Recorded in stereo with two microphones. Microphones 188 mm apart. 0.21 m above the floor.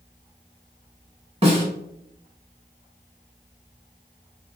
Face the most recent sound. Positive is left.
turn(degrees=-30)  # may be behind; listen again after turning